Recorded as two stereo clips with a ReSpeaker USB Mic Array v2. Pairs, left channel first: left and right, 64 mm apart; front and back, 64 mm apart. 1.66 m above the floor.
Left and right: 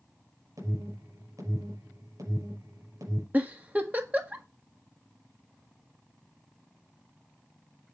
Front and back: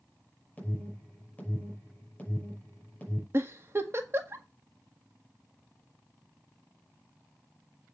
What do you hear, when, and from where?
0.6 s an alarm: 70° right, 6 m
3.3 s a giggle: 145° right, 1.5 m